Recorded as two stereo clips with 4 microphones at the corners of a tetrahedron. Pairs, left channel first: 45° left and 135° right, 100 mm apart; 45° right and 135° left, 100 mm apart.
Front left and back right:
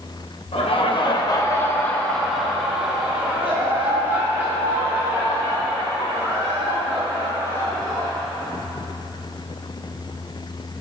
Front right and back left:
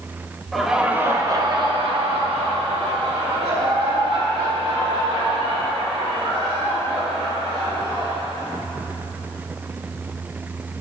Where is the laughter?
45° left, 1.3 m; by 8.1 s 165° left, 7 m.